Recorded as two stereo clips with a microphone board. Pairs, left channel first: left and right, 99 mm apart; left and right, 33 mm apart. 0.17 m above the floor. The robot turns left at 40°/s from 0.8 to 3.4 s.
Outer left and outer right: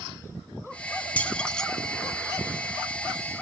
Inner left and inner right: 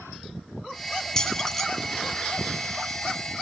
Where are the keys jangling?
15° left (ahead or behind), 1.0 m; by 1.6 s 5° left (ahead or behind), 1.0 m.